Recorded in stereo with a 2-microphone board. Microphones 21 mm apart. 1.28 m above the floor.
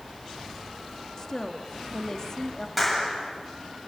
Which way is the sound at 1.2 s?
25° left (ahead or behind).